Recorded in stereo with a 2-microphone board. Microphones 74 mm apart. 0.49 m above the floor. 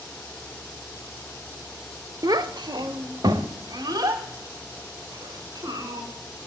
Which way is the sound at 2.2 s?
55° right (ahead or behind).